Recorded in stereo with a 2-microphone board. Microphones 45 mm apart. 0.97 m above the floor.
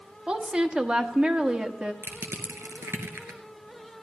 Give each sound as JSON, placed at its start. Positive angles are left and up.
{"t": 0.3, "sound": "a woman speaking", "side_deg": -20, "distance_m": 1.3}
{"t": 2.0, "sound": "crushing", "side_deg": -65, "distance_m": 2.5}